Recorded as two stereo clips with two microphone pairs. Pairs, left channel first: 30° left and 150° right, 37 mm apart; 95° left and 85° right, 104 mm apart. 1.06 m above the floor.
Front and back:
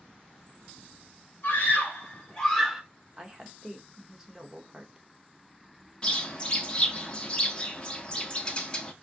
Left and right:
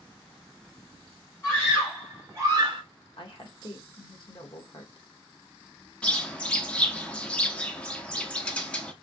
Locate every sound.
1.4 s a scream: 25° left, 1.6 m; by 2.8 s 80° right, 1.0 m
3.2 s a woman speaking: 135° left, 1.0 m
6.0 s a bird: 30° left, 0.6 m